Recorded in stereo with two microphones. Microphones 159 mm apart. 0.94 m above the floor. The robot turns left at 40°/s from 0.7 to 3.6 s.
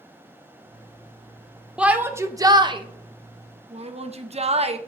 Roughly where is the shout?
Centre.